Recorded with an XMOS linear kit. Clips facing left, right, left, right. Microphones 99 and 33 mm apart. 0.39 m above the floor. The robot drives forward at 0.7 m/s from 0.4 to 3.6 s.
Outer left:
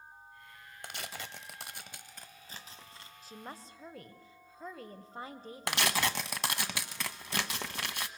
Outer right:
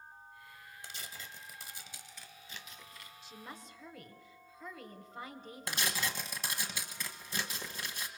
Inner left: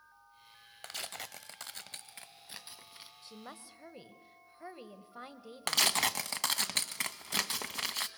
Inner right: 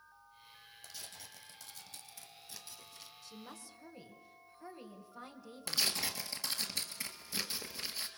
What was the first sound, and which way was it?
Tearing paper, 60° left (ahead or behind).